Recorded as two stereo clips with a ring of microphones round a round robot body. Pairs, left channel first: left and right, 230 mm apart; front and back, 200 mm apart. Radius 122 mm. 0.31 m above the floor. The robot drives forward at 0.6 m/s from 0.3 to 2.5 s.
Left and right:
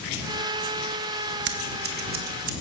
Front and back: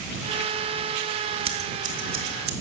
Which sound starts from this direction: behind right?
Scissors, at 1.4 s.